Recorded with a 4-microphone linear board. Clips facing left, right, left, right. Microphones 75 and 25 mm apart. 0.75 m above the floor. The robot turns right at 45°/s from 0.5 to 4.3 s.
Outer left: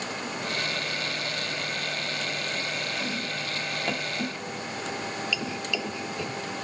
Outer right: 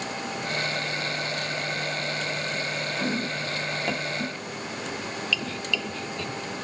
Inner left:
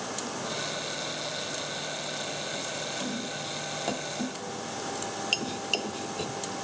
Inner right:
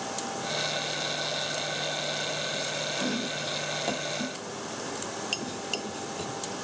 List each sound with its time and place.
3.0 s chopping: 45° right (ahead or behind); by 6.4 s 15° left (ahead or behind)